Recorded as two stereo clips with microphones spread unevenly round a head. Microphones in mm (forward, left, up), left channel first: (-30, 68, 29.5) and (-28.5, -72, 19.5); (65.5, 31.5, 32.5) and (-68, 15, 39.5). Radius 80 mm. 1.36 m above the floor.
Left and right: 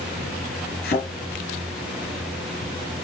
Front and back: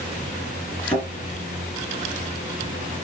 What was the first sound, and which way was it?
A thud, 90° left.